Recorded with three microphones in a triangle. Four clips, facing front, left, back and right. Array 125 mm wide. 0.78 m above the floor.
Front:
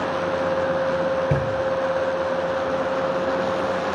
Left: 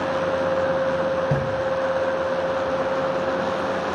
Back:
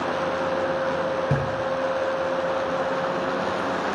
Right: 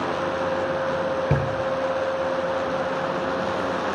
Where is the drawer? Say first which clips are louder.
Left 1 dB, front 3 dB; 100° right, 6.5 m.